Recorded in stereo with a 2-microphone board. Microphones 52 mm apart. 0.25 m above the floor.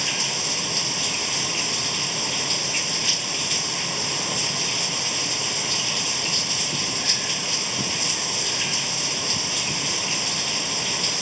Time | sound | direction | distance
0.0 | running water | centre (ahead or behind) | ?